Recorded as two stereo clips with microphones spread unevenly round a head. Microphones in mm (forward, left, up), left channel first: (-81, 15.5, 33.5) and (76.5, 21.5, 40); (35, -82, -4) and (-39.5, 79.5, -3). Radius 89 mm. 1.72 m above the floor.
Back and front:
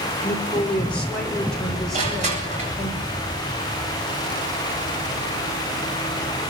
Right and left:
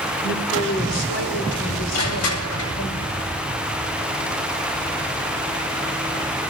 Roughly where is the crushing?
Ahead right.